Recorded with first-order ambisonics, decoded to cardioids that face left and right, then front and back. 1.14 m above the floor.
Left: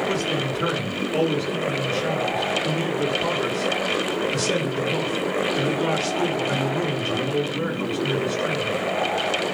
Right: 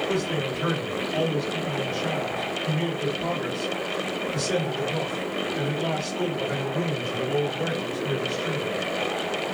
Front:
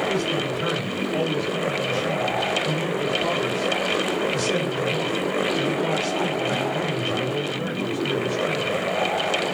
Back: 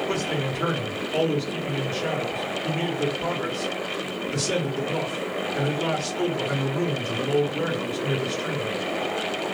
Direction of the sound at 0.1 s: 130° left.